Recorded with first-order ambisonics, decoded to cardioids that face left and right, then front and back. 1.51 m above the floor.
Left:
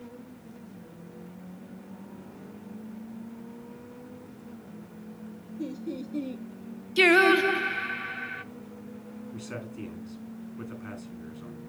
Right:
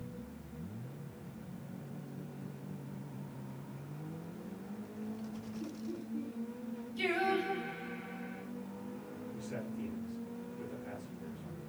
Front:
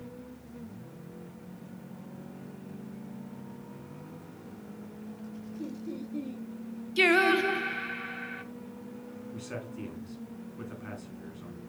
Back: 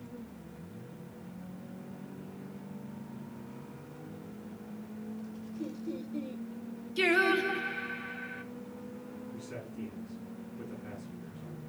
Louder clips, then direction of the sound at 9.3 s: Left 5 dB, front 6 dB; 55° left.